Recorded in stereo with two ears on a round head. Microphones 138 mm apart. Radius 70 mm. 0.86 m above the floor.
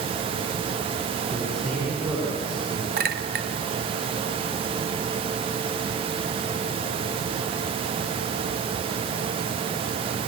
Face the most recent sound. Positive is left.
turn(degrees=-65)  # may be behind; listen again after turning